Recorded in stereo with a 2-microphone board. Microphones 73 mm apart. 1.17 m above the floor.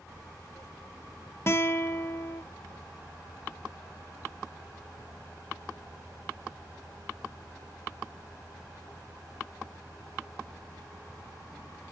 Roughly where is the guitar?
Left.